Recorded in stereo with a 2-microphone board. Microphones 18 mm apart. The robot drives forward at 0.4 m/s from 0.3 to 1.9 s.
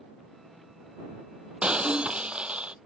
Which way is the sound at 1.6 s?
80° right.